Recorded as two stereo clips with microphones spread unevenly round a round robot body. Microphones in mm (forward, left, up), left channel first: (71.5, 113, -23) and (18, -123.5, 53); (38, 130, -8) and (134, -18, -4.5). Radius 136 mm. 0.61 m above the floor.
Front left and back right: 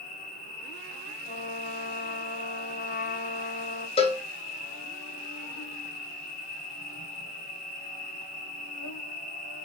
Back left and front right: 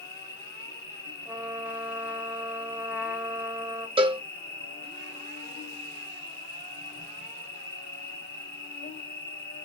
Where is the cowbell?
Straight ahead, 0.5 m.